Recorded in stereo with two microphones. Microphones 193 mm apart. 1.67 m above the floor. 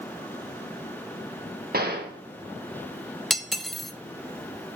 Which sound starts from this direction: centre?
Cutlery clinking, at 3.3 s.